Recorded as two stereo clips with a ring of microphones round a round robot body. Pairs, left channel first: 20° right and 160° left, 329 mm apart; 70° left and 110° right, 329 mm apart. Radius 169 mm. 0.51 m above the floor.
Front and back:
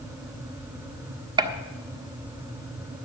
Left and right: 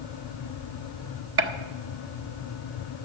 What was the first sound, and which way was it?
A gunshot, 135° right.